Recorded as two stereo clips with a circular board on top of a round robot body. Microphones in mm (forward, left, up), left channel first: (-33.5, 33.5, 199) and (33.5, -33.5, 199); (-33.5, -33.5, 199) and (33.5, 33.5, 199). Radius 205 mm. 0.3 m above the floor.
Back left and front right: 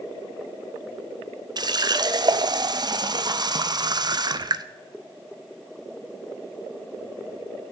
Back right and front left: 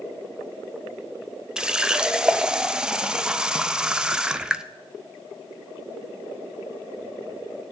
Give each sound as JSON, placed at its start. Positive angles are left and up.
{"t": 1.6, "sound": "a running tap", "azimuth_deg": -35, "distance_m": 0.7}